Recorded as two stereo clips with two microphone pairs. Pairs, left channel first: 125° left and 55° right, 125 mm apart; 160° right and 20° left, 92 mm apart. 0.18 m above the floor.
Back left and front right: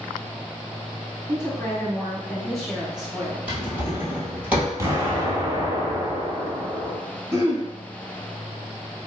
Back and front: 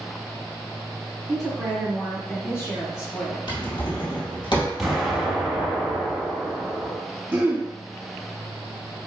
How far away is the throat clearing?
About 1.2 m.